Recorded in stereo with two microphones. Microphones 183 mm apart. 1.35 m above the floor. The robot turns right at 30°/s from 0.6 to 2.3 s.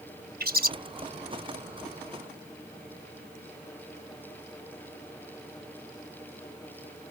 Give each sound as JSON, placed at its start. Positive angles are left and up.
{"t": 0.4, "sound": "a bird", "side_deg": -60}